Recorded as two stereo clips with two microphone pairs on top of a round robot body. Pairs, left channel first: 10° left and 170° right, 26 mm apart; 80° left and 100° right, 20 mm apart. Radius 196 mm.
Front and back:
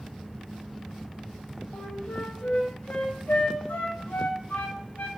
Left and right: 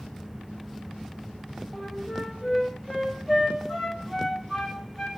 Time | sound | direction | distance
1.7 | a flute | 5° left | 0.5 m